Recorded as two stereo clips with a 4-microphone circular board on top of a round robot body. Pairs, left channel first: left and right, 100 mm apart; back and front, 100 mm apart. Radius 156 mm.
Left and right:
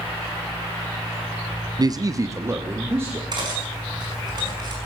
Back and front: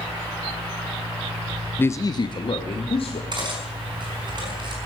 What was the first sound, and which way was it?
A man speaking, 115° right.